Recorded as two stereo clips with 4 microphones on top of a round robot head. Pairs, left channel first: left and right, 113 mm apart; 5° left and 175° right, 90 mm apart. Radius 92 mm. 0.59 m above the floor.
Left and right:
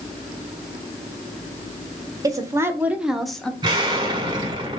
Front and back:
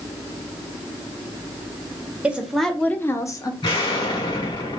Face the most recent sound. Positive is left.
turn(degrees=-40)